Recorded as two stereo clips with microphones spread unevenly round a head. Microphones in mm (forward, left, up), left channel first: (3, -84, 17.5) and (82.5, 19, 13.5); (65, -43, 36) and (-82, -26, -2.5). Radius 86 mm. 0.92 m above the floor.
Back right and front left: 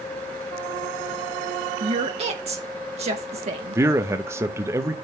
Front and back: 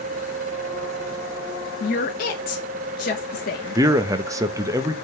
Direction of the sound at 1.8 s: 30° left.